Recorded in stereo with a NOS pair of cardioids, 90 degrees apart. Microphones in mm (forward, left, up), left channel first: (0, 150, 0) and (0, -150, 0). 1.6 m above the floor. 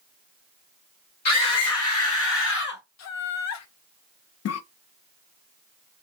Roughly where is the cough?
Ahead left.